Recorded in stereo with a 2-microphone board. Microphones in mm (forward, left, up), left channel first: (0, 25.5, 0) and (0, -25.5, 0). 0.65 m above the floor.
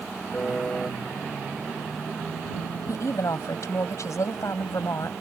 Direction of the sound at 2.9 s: 75° left (ahead or behind).